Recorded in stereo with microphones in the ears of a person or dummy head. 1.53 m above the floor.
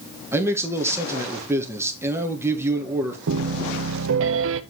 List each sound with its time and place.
0.3 s a man speaking: 10° right (ahead or behind), 2.0 m
3.3 s a piano: 70° right (ahead or behind), 0.8 m